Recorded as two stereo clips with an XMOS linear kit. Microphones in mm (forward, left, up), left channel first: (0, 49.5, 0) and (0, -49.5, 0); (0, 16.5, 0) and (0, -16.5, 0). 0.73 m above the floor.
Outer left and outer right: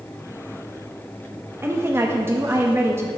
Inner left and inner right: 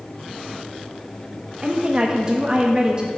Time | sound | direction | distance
1.6 | a woman speaking | 25° right (ahead or behind) | 0.6 m